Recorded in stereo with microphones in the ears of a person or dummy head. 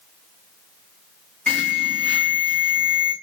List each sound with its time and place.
1.5 s an alarm: 5° left (ahead or behind), 1.0 m